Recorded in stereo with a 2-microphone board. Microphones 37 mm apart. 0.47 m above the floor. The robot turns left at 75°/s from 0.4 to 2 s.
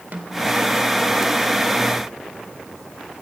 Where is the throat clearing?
I don't hear throat clearing.